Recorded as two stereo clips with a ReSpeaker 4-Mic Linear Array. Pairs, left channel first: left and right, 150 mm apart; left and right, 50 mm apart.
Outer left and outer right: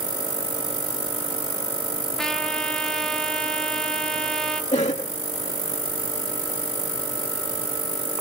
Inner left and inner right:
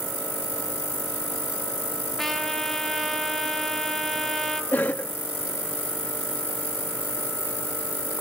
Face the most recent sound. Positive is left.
turn(degrees=50)  # may be behind; listen again after turning